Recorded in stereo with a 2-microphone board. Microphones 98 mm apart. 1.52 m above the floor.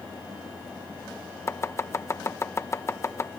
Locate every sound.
1.5 s chopping: 30° left (ahead or behind)